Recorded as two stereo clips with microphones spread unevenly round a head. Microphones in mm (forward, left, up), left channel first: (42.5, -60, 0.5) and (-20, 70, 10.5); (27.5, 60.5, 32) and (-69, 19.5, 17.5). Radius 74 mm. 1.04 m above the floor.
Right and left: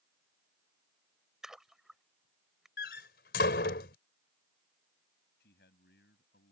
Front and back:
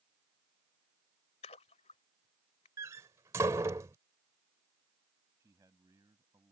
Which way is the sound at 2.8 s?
85° right.